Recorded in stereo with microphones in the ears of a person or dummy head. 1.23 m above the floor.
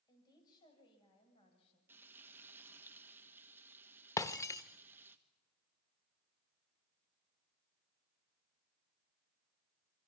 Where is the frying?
5° right (ahead or behind), 1.4 m.